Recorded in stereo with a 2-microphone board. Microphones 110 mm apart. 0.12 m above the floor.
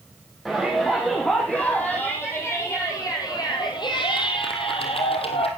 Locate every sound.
0.5 s a shout: 5° left (ahead or behind), 4.5 m; by 5.5 s 65° left (ahead or behind), 3.5 m